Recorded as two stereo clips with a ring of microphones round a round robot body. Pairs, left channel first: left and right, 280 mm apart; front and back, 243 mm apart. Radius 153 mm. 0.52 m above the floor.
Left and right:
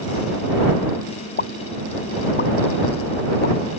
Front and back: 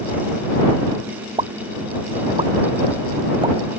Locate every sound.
1.4 s a pop: 120° left